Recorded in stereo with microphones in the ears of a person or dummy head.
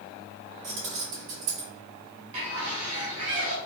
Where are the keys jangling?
60° right (ahead or behind), 1.6 m.